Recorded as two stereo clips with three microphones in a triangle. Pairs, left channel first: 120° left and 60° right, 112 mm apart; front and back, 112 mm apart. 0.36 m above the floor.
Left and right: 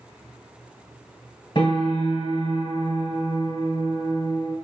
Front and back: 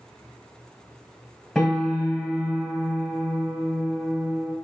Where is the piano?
90° left, 1.3 m.